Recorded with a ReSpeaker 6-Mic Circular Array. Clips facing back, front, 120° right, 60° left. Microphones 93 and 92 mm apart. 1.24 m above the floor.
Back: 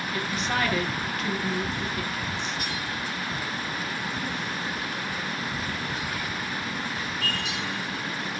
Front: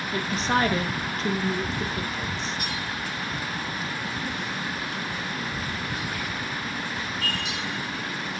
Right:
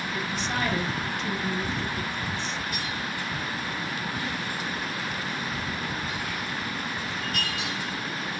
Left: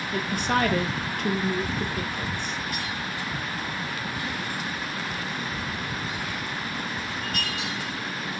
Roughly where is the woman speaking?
Ahead left.